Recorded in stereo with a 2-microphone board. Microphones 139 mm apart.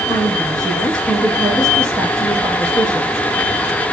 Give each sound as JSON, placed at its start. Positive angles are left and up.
{"t": 0.1, "sound": "a woman speaking", "side_deg": 5, "distance_m": 5.5}